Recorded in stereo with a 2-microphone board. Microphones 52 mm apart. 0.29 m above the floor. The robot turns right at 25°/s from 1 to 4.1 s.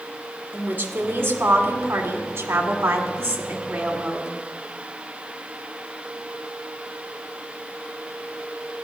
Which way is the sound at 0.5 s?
130° right.